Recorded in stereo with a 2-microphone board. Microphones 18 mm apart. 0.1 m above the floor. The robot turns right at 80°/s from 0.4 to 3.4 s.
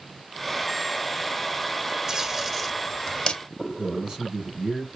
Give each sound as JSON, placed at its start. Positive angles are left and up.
{"t": 2.1, "sound": "tape being pulled", "side_deg": -35, "distance_m": 1.3}
{"t": 3.8, "sound": "a man speaking", "side_deg": -40, "distance_m": 2.5}